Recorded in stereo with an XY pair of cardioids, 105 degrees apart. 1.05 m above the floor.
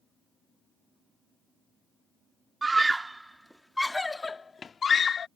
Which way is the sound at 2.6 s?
25° right.